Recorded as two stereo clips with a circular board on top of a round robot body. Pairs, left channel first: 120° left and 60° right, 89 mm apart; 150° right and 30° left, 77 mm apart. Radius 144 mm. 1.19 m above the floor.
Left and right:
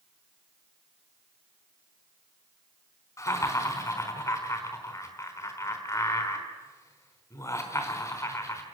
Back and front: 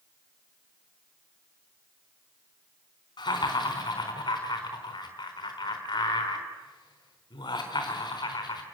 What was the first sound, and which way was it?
Laughter, 175° left.